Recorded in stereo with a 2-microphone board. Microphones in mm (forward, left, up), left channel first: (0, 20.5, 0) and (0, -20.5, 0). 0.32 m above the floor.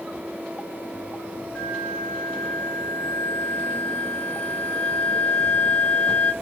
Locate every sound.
1.6 s a flute: 20° left (ahead or behind), 1.4 m